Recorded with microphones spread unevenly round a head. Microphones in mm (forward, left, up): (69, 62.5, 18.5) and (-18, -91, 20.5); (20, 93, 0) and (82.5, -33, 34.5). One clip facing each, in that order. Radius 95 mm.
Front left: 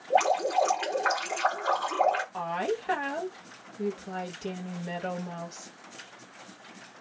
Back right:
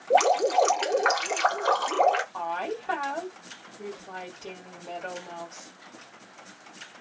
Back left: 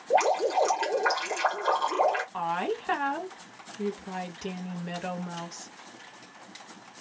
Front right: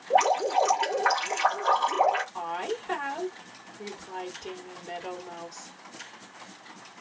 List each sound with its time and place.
0.1 s dripping: 165° right, 1.0 m
2.3 s a woman speaking: 130° left, 1.3 m